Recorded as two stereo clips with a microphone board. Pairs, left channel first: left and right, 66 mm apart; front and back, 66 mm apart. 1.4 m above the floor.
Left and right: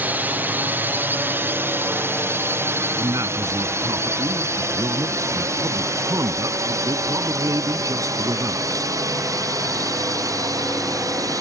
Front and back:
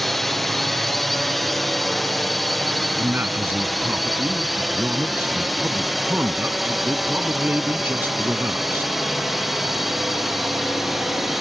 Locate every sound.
0.0 s a drone: 85° right; by 11.4 s 95° right
3.0 s a man speaking: 120° right